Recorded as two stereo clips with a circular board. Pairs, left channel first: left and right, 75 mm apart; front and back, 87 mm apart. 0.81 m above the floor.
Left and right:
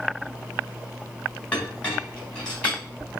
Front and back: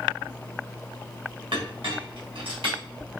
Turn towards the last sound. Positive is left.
turn(degrees=165)